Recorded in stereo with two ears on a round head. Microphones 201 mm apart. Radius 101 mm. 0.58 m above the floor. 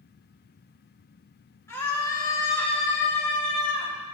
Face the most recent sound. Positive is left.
turn(degrees=45)  # may be behind; listen again after turning